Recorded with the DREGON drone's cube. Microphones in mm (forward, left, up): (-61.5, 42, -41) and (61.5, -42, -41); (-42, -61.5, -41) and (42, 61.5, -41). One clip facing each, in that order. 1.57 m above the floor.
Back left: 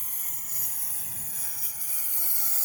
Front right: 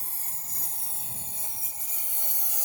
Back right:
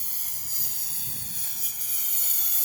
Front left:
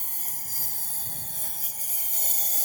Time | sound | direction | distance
0.0 | a lawn mower | 20° left | ?